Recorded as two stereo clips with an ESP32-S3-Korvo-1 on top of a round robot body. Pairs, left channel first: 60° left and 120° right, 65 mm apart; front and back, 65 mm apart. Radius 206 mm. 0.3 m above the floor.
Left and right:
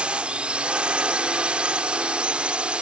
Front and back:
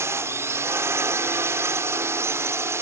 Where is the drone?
175° left.